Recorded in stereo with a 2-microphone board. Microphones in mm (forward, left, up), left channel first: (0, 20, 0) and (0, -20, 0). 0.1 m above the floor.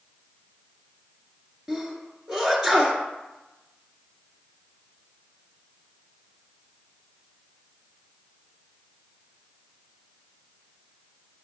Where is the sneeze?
10° right (ahead or behind), 1.9 m.